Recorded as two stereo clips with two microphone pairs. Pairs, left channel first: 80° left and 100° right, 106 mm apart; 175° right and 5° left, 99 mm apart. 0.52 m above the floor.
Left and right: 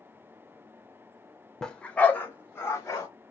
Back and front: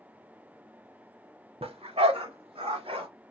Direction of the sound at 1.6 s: Straight ahead.